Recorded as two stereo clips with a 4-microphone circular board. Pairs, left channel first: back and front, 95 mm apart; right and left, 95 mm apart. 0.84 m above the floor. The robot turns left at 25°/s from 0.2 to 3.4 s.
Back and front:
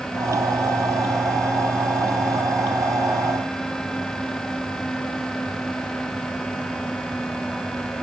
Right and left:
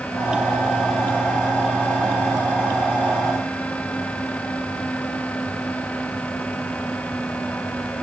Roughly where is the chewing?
I don't hear chewing.